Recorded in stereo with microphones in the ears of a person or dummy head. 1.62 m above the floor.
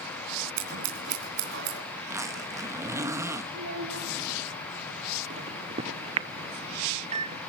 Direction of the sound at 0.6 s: 65° right (ahead or behind).